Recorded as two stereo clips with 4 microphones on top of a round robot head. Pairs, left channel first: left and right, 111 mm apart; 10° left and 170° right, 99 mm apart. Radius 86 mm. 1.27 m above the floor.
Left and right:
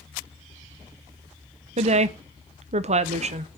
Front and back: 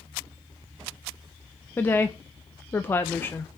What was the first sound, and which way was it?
A woman speaking, 65° right.